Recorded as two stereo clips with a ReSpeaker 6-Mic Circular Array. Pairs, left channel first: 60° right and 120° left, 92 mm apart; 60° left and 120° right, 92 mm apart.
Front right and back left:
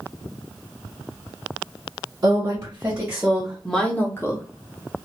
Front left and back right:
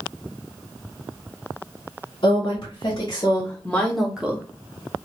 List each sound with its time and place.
2.2 s a woman speaking: 75° left, 1.4 m; by 4.5 s 60° right, 0.9 m